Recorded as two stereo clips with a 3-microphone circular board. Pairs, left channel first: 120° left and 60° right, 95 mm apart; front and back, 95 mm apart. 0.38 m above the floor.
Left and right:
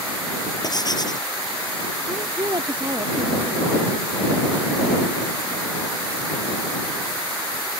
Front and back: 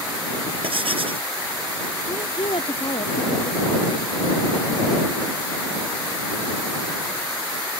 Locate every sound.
0.6 s writing: 165° left
2.1 s a woman speaking: 20° right